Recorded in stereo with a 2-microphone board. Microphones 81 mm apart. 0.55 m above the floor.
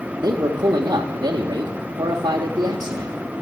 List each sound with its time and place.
0.2 s a man speaking: 55° right (ahead or behind), 1.0 m